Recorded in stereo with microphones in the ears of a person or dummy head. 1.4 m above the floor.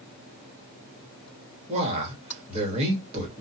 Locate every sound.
1.7 s a man speaking: 35° right (ahead or behind), 1.2 m